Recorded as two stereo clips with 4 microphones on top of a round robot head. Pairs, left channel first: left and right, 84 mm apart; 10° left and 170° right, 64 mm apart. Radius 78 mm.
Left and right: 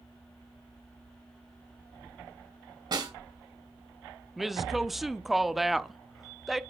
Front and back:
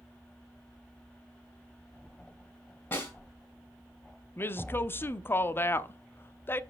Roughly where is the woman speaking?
Ahead.